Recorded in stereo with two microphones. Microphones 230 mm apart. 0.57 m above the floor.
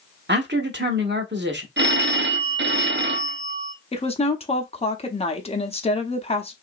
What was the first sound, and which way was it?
A man speaking, 50° right (ahead or behind).